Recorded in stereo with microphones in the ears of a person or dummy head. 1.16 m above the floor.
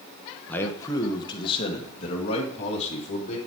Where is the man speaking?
10° left (ahead or behind), 0.8 m; by 3.4 s 35° left (ahead or behind), 2.5 m.